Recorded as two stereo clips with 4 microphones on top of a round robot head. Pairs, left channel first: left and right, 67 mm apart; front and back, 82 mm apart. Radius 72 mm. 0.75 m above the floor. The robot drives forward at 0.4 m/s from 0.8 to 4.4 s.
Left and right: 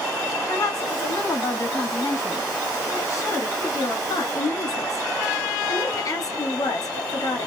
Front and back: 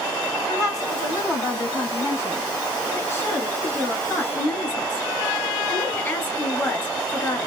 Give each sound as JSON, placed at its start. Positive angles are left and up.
{"t": 0.5, "sound": "a woman speaking", "azimuth_deg": 45, "distance_m": 3.5}